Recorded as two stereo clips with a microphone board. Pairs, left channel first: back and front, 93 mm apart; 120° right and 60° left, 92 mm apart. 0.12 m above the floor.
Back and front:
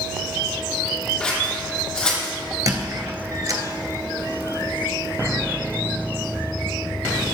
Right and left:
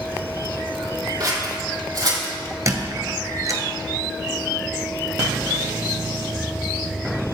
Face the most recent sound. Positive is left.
turn(degrees=25)